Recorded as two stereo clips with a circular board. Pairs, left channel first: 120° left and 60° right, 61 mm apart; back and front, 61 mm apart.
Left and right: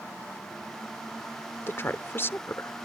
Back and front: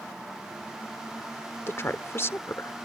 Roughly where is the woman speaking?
Behind left.